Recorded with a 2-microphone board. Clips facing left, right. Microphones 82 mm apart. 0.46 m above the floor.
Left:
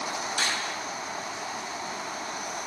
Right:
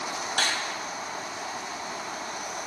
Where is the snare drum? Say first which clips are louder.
Right 3 dB; 65° right (ahead or behind), 2 m.